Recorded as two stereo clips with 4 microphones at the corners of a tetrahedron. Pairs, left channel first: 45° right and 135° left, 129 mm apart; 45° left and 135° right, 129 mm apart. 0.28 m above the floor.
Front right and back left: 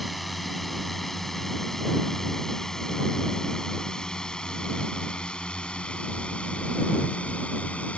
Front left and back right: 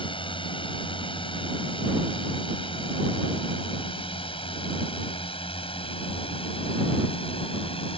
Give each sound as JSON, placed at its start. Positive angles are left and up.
{"t": 0.0, "sound": "a drone", "azimuth_deg": 45}